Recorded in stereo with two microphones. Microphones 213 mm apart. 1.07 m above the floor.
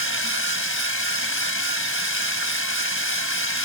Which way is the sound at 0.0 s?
80° left.